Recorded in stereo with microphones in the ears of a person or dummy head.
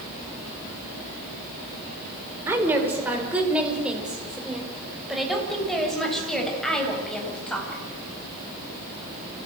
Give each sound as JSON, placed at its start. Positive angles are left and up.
{"t": 2.5, "sound": "a woman speaking", "side_deg": -15, "distance_m": 4.5}